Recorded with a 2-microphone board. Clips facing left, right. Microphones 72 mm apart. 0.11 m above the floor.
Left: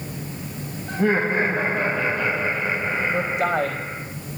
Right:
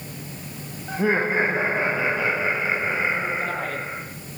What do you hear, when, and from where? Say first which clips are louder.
0.9 s laughter: left 1 dB; 5° right (ahead or behind), 4 m
3.1 s a man speaking: left 4 dB; 65° left (ahead or behind), 5.5 m